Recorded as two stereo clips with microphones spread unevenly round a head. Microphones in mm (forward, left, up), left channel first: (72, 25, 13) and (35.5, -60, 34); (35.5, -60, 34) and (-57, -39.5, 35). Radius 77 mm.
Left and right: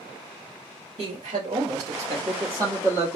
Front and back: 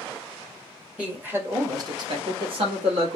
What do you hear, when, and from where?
1.0 s a man speaking: 115° right, 1.3 m; by 3.2 s 170° left, 1.4 m